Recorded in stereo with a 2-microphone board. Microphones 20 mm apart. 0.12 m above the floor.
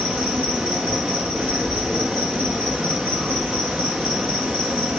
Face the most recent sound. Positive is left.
turn(degrees=-85)